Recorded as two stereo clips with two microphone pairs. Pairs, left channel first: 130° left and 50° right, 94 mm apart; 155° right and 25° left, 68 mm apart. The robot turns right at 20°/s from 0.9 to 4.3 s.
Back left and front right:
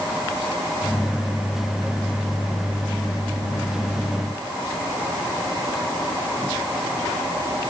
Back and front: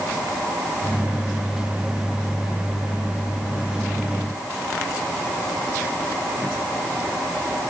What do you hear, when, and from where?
Only background noise.